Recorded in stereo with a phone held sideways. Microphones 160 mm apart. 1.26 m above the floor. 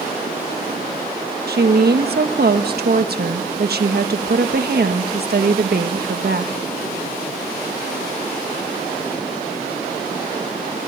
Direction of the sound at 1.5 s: 80° right.